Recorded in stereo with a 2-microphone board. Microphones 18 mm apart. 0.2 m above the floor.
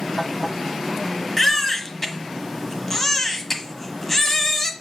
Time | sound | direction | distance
1.4 | a baby crying | 15° left (ahead or behind) | 1.2 m